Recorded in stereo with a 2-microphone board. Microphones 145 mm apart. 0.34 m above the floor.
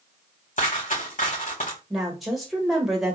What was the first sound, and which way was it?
A dropped coin, 65° left (ahead or behind).